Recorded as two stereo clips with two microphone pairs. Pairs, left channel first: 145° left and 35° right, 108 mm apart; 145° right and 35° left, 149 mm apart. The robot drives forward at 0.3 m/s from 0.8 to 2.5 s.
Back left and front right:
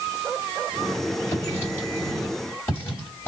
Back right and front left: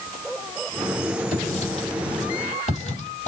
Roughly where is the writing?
Behind right.